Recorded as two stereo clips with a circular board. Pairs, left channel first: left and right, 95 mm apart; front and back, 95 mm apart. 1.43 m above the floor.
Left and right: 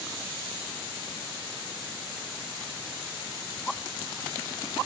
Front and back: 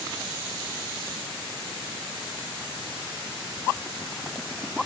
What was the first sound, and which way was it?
Only background noise.